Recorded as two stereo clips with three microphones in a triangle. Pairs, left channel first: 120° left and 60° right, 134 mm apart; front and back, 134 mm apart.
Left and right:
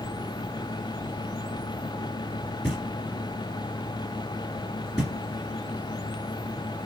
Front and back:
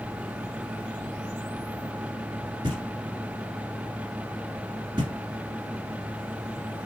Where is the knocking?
155° right, 1.7 m.